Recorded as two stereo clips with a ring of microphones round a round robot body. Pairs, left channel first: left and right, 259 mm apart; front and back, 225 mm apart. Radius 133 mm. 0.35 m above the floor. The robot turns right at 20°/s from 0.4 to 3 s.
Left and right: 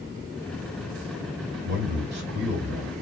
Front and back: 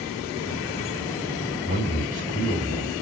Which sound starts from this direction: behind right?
A man speaking, at 1.6 s.